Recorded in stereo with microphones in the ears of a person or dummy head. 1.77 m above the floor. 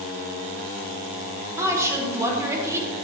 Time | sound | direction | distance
1.6 | a woman speaking | 15° right (ahead or behind) | 1.4 m